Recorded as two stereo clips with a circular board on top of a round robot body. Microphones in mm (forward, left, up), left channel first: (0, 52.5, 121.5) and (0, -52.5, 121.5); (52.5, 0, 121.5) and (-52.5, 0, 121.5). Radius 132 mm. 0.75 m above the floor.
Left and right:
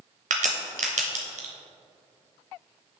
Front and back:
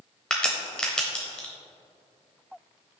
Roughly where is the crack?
Right.